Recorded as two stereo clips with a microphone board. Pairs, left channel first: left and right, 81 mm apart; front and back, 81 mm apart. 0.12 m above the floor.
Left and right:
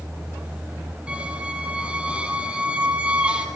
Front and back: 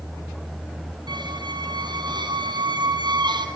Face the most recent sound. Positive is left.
turn(degrees=-165)